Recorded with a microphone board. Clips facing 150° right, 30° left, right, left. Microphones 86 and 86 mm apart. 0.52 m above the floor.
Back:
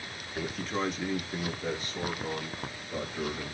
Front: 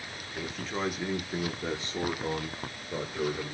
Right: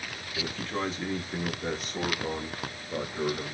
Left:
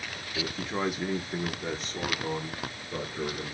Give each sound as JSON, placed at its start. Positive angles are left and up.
{"t": 0.3, "sound": "a man speaking", "azimuth_deg": 135, "distance_m": 1.0}